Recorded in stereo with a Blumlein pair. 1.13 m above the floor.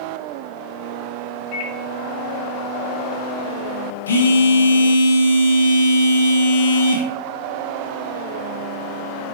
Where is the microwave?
45° left, 1.7 m.